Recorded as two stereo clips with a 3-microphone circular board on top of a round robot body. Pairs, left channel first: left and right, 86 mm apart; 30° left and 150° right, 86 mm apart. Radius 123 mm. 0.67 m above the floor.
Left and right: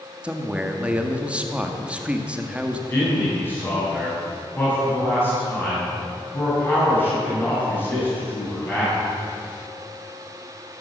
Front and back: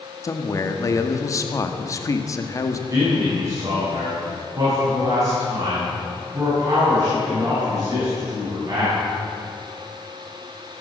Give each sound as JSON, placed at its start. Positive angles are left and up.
{"t": 0.2, "sound": "a man speaking", "azimuth_deg": -15, "distance_m": 1.7}
{"t": 2.9, "sound": "a man speaking", "azimuth_deg": 155, "distance_m": 7.0}